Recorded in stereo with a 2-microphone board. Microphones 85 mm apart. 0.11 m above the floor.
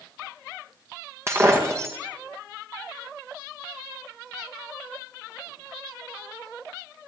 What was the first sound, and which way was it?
Breaking glass, 30° right (ahead or behind).